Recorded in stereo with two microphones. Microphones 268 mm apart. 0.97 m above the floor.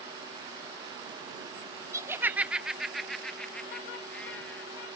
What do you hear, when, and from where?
1.9 s laughter: 10° right (ahead or behind); by 4.7 s 5° left (ahead or behind)